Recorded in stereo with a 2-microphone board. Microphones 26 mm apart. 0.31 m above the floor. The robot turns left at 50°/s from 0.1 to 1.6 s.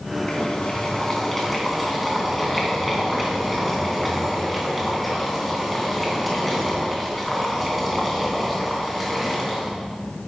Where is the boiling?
65° left, 3 m; by 9.7 s straight ahead, 3 m.